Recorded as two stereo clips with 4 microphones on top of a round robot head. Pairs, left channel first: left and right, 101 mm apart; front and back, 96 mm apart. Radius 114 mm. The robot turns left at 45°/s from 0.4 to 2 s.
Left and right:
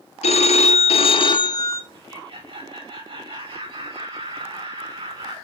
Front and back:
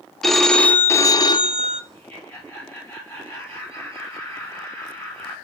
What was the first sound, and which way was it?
A phone ringing, 90° left.